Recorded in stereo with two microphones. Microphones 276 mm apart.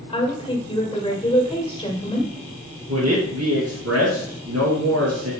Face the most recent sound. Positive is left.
turn(degrees=-65)  # may be behind; listen again after turning